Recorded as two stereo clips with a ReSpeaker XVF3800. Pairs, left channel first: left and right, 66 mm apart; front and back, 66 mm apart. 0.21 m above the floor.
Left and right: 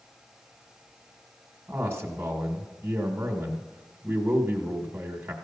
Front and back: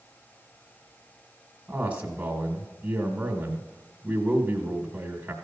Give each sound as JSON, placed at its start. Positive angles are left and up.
{"t": 1.7, "sound": "a man speaking", "azimuth_deg": -120, "distance_m": 1.2}